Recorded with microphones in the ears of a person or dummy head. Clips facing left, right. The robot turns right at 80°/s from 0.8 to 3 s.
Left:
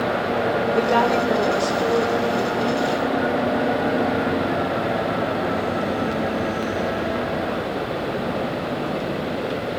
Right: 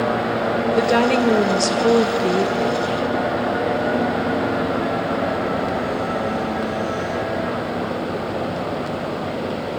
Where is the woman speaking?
165° right, 1.9 m; by 3.0 s 5° left, 1.9 m.